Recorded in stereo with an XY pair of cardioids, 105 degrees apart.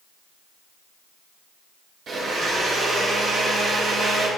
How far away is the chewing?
No chewing in this recording.